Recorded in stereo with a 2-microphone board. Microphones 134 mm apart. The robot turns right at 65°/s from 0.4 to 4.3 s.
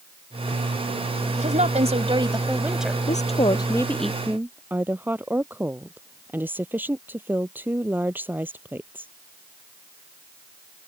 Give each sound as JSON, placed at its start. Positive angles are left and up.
{"t": 1.4, "sound": "a woman speaking", "azimuth_deg": -100}
{"t": 3.1, "sound": "a woman speaking", "azimuth_deg": 115}